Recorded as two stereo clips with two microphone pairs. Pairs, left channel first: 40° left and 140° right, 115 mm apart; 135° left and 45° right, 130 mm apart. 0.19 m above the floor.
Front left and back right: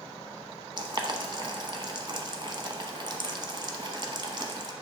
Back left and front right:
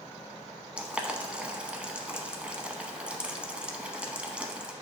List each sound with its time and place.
0.8 s boiling: 120° right, 0.9 m